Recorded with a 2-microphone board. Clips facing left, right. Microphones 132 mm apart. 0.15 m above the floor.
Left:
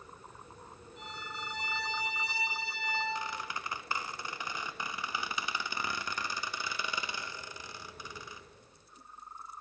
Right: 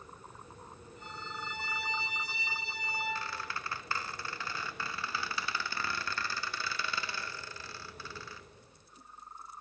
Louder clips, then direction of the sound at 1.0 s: Even; 75° left (ahead or behind).